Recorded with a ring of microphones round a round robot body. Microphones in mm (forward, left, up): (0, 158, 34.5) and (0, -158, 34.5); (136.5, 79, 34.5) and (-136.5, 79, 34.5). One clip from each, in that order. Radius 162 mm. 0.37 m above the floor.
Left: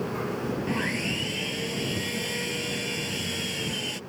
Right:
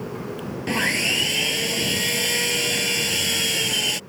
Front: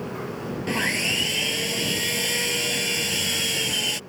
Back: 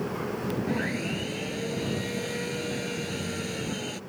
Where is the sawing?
40° right.